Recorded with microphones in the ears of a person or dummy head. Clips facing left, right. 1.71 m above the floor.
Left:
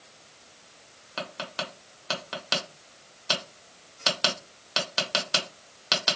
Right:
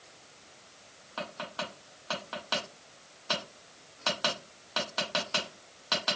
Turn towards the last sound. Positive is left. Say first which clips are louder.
# left 2 dB
turn(degrees=40)  # may be behind; listen again after turning